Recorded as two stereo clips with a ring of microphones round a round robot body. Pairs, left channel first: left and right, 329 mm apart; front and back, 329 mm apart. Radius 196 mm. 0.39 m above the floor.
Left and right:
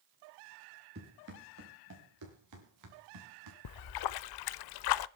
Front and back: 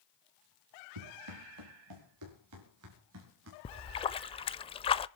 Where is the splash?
75° left, 0.6 m.